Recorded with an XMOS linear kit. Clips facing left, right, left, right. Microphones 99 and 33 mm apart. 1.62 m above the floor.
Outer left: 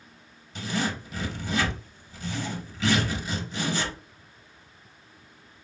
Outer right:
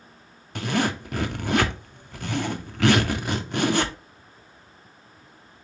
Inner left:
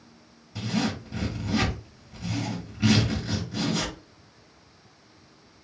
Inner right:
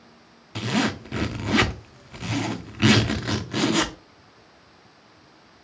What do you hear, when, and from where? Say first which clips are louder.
0.6 s a zipper: outer right 5 dB, inner right 4 dB; 60° right (ahead or behind), 0.5 m